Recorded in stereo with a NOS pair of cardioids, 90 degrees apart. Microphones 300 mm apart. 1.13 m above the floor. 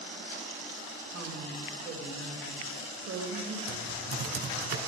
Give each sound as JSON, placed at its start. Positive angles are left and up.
{"t": 1.1, "sound": "a woman speaking", "azimuth_deg": -65, "distance_m": 3.5}
{"t": 3.7, "sound": "typing on a keyboard", "azimuth_deg": -65, "distance_m": 3.0}